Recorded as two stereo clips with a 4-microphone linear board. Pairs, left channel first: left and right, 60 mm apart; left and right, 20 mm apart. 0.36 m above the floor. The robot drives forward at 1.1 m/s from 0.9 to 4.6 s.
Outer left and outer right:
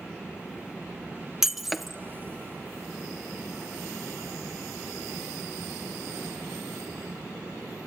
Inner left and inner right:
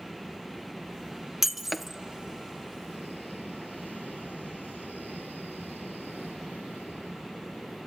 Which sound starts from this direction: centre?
Breaking glass, at 1.4 s.